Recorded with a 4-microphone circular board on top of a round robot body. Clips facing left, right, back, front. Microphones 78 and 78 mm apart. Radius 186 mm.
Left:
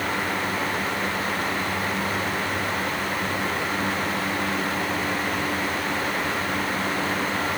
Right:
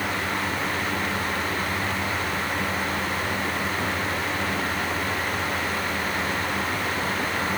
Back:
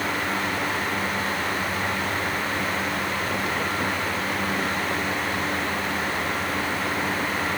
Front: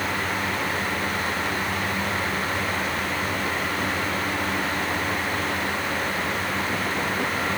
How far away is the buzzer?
I don't hear a buzzer.